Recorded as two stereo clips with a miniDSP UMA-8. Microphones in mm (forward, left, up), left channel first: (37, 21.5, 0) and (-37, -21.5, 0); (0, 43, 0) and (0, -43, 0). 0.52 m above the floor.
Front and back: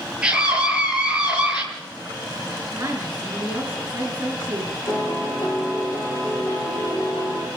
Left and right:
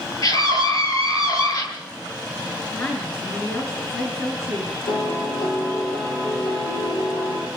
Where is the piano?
85° left, 8.5 m.